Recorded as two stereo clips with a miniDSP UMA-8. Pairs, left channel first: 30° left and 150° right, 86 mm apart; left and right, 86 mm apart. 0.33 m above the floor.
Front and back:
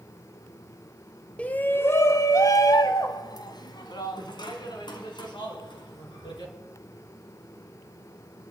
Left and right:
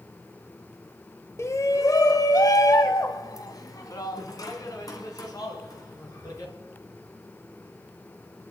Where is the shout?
95° left, 1.0 m; by 6.5 s 50° left, 4 m.